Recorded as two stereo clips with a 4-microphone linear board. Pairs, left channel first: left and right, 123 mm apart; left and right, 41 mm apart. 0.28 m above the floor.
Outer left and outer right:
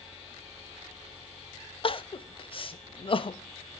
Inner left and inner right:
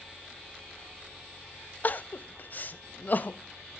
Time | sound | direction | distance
1.8 | crying | 45° left (ahead or behind) | 0.5 m